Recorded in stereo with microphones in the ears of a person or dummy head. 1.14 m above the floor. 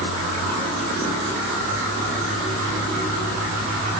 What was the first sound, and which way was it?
Only background noise.